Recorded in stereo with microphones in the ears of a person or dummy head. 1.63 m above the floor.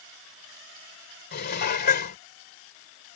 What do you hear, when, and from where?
1.3 s dishes clattering: 50° left (ahead or behind)